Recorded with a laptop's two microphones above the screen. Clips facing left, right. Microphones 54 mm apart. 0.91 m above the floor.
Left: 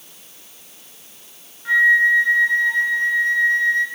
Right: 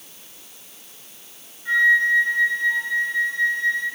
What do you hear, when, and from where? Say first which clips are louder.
1.6 s a flute: left 3 dB; 70° left (ahead or behind), 1.3 m